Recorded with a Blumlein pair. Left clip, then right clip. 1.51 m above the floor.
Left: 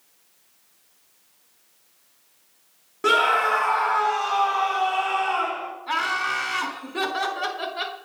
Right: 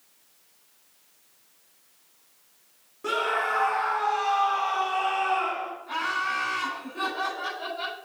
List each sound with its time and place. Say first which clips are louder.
3.0 s a scream: left 7 dB; 45° left, 1.9 m; by 5.7 s 65° left, 5.5 m
5.9 s laughter: left 4 dB; 40° left, 4.5 m